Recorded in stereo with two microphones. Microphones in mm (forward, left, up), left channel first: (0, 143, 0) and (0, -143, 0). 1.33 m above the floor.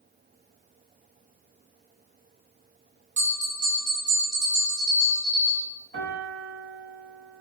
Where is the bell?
60° right (ahead or behind), 2 m.